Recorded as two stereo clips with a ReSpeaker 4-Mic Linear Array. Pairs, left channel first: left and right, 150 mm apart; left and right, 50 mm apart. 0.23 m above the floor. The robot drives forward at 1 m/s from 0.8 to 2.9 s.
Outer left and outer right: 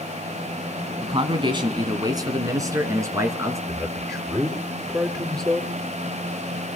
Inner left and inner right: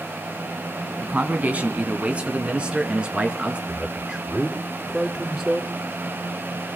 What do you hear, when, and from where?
1.0 s a man speaking: 40° right (ahead or behind), 1.9 m; by 3.6 s 20° right (ahead or behind), 3 m
3.7 s a man speaking: 20° right (ahead or behind), 3 m